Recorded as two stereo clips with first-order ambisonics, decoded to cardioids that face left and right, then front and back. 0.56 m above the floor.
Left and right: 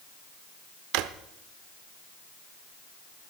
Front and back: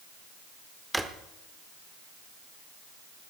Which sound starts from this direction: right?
A drawer, at 0.9 s.